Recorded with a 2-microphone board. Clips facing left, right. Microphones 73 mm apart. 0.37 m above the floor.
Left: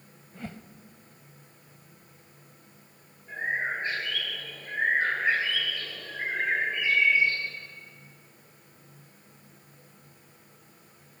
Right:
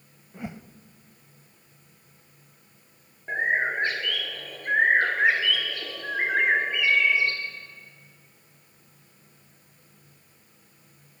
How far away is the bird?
About 2.5 m.